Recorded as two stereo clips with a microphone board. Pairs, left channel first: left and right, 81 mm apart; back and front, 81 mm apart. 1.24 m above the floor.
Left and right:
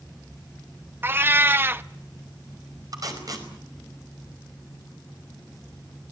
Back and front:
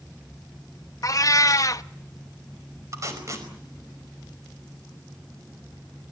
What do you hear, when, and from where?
1.0 s a cat meowing: 145° right, 0.8 m
2.9 s tape being pulled: 50° right, 5 m